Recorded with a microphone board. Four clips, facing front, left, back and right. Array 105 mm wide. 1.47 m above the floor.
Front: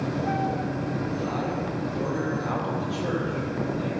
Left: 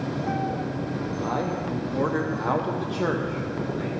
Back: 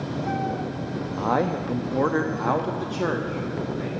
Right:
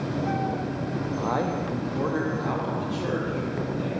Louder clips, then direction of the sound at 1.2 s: Right 1 dB, back 5 dB; 165° right.